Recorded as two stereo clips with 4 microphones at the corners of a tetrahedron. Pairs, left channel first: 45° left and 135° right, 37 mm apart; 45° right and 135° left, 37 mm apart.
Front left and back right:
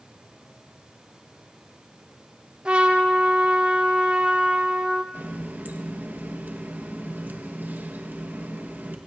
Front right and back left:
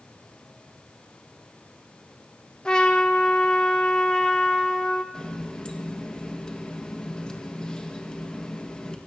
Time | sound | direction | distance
2.6 | a trumpet | 95° right | 1.4 m
5.1 | a running tap | 110° right | 1.3 m